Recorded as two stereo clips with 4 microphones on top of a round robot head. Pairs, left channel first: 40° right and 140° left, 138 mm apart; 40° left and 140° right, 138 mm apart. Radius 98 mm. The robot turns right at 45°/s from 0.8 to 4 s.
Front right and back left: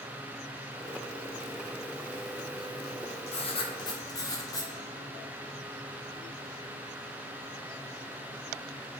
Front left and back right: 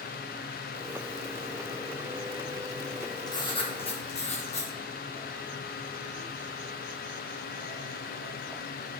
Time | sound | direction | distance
3.3 | writing | 15° right | 1.5 m